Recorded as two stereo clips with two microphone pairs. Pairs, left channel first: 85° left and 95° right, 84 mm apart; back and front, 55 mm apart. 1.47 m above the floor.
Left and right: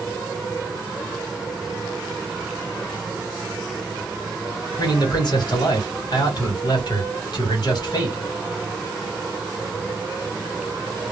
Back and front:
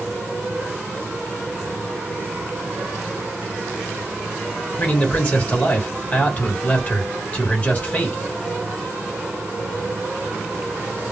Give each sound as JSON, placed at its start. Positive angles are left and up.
{"t": 4.8, "sound": "a man speaking", "azimuth_deg": 115, "distance_m": 1.3}